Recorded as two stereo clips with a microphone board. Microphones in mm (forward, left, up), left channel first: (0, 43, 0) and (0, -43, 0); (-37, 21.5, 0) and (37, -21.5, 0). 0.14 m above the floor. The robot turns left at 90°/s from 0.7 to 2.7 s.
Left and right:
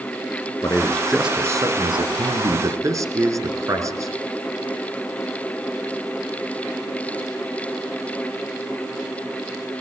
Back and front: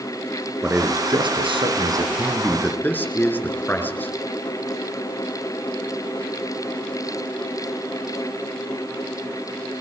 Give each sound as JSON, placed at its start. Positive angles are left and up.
{"t": 0.6, "sound": "a man speaking", "azimuth_deg": 40, "distance_m": 7.0}